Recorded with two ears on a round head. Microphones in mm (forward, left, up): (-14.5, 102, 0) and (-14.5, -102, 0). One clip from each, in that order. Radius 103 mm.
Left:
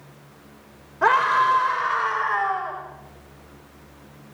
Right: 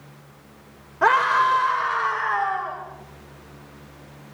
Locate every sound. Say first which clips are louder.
1.0 s a scream: even; 15° right (ahead or behind), 4 m; by 2.8 s 10° left (ahead or behind), 4.5 m